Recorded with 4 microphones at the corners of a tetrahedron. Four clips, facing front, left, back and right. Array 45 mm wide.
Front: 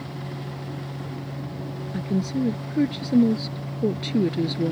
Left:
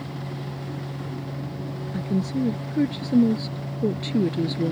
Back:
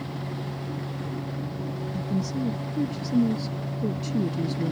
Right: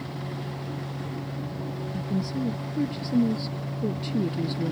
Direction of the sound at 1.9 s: 35° left.